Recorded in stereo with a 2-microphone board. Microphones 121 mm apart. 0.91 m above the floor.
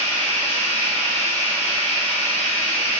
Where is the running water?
60° right (ahead or behind), 1.7 m.